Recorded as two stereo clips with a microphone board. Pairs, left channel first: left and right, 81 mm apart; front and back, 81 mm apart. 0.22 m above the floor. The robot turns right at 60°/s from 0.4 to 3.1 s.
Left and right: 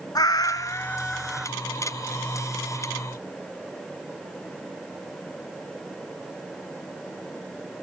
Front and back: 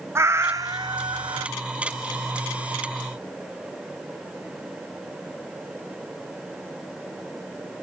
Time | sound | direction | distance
0.1 | a cat meowing | 125° left | 0.5 m